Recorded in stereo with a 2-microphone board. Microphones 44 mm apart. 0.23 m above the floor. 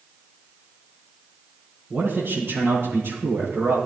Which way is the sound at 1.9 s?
60° right (ahead or behind).